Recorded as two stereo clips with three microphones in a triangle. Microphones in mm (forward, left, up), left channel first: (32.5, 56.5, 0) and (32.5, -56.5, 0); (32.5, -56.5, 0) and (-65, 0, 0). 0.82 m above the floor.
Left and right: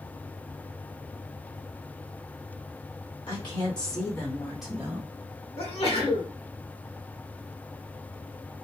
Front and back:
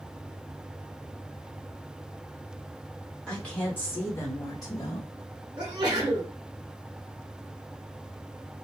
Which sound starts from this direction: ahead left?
A woman speaking, at 3.3 s.